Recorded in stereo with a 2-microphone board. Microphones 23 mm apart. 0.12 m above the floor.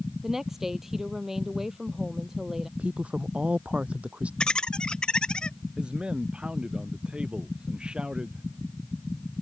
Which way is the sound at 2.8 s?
70° right (ahead or behind).